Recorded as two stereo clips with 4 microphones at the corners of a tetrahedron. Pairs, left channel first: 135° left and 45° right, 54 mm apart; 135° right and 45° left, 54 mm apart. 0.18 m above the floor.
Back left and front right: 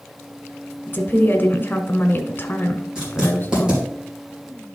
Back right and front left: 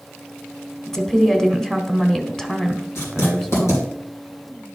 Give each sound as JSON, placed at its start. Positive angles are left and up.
{"t": 0.9, "sound": "a woman speaking", "azimuth_deg": 150, "distance_m": 1.3}
{"t": 3.0, "sound": "writing", "azimuth_deg": -120, "distance_m": 4.0}